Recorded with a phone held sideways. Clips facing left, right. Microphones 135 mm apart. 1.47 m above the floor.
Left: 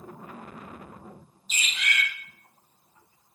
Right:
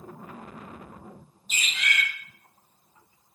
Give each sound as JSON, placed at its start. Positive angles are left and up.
{"t": 1.5, "sound": "a bird", "side_deg": -55, "distance_m": 0.6}